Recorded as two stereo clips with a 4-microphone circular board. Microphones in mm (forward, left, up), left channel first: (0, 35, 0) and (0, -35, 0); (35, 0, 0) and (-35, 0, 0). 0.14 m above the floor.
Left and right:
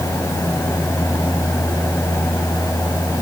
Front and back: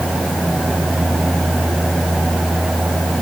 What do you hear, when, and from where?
Only background noise.